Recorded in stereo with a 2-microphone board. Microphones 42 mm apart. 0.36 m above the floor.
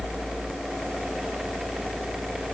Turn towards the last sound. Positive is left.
No sound to turn to.